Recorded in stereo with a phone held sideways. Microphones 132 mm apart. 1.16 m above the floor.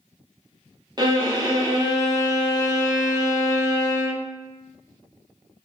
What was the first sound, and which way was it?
A violin, 30° right (ahead or behind).